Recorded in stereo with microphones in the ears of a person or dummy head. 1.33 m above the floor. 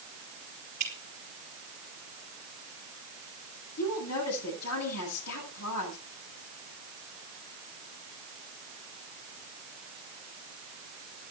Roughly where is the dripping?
Right.